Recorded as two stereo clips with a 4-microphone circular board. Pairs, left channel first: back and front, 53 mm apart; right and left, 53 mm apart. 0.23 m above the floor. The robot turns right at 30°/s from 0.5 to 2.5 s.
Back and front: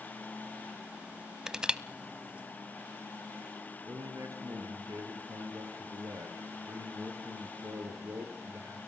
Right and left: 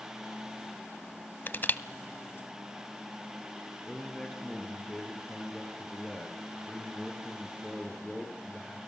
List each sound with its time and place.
1.5 s crushing: 75° right, 0.7 m; by 1.8 s 65° right, 0.7 m
3.9 s a man speaking: 10° right, 5 m